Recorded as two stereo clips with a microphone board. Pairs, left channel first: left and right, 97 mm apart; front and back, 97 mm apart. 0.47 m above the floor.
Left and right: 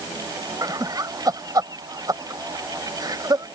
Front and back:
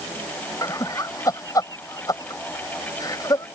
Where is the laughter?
45° right.